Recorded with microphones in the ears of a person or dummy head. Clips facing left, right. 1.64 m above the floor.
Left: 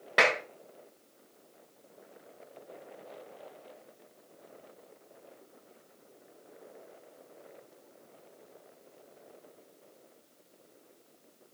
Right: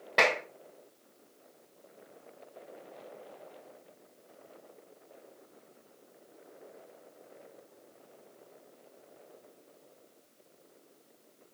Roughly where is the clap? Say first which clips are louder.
Even; centre.